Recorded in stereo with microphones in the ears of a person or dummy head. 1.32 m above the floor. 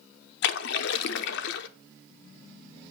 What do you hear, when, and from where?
0.4 s a splash: 60° left (ahead or behind), 0.7 m